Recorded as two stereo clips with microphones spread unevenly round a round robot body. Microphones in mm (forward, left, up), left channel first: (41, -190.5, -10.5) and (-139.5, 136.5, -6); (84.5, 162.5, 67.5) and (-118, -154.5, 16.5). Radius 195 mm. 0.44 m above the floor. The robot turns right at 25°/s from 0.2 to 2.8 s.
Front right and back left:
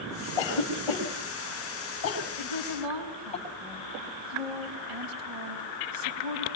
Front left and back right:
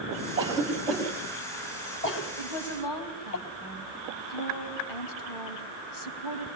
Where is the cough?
50° right, 3.5 m; by 3.4 s 15° left, 3.5 m.